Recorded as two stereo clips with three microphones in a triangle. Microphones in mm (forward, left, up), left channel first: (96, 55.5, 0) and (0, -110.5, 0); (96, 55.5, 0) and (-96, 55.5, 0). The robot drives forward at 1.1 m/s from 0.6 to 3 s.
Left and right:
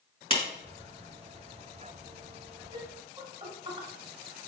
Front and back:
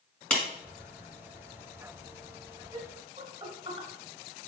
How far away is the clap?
About 1.5 m.